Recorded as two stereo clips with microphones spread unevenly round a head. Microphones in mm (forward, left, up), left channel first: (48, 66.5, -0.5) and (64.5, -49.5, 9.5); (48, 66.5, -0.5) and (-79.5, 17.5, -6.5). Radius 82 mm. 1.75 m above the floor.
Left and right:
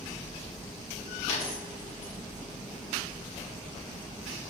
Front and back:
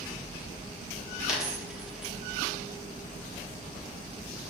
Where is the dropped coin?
115° left, 1.8 m.